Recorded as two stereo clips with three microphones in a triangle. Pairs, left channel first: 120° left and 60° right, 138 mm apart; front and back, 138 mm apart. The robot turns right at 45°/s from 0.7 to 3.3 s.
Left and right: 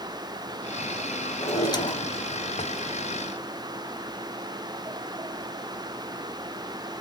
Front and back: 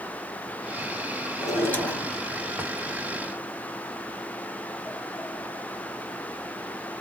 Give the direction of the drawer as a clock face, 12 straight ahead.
10 o'clock.